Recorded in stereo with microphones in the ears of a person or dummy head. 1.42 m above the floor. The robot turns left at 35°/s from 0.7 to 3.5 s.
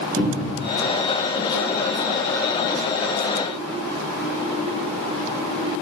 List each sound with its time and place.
0.2 s a cupboard door: 20° right (ahead or behind), 1.4 m